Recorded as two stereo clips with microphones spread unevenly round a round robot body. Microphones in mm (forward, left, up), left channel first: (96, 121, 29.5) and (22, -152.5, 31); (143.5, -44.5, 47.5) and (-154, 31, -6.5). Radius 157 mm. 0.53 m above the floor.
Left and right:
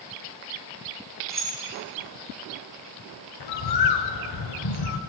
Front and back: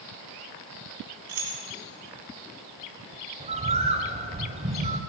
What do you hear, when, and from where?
1.3 s keys jangling: 165° left, 2.5 m
3.4 s a bird: 95° left, 0.6 m